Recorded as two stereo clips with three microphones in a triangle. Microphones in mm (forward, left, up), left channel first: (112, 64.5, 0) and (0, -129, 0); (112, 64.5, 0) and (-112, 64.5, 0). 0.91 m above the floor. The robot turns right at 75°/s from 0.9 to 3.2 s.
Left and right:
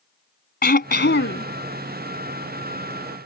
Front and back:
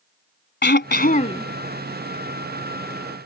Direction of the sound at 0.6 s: 25° left.